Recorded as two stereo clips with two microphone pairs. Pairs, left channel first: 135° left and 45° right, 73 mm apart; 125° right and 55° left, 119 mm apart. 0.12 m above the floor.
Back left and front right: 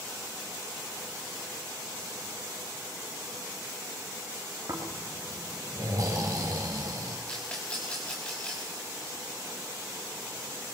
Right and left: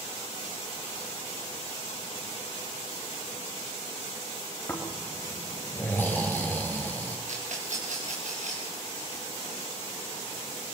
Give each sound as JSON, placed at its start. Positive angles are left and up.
{"t": 4.7, "sound": "snoring", "azimuth_deg": -55, "distance_m": 2.5}
{"t": 7.3, "sound": "a rattle", "azimuth_deg": 55, "distance_m": 4.0}